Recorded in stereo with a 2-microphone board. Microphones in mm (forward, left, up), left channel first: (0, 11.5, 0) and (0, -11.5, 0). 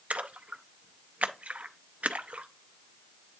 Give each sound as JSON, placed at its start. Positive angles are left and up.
{"t": 0.1, "sound": "a splash", "side_deg": -80, "distance_m": 0.6}